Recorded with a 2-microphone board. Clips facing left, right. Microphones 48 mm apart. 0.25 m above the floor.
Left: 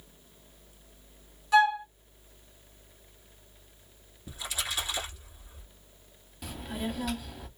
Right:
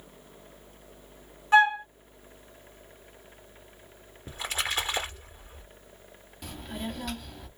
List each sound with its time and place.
1.5 s a flute: 35° right (ahead or behind), 0.8 m
4.3 s a splash: 40° right (ahead or behind), 1.5 m
6.4 s a child speaking: centre (ahead or behind), 0.7 m